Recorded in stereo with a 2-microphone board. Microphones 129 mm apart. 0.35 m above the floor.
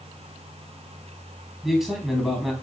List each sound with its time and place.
1.6 s a man speaking: 5° right (ahead or behind), 3 m